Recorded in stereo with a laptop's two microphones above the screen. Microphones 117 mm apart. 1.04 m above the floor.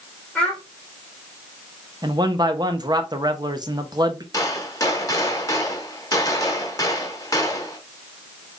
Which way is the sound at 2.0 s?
35° right (ahead or behind).